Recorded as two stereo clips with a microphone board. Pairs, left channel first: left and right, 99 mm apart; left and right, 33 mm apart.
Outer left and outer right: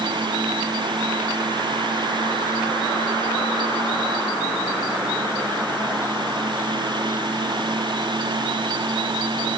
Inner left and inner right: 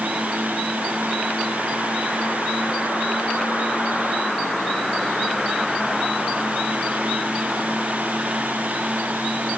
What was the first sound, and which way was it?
Only background noise.